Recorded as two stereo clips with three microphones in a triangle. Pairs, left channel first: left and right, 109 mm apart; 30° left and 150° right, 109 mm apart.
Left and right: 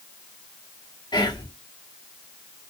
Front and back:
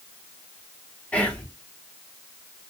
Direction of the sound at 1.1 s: 100° left.